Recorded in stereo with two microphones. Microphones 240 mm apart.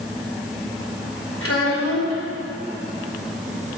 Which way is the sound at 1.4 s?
65° left (ahead or behind).